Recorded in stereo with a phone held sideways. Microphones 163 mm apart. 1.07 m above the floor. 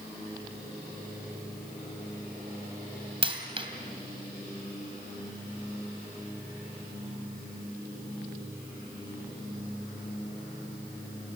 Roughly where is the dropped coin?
Right.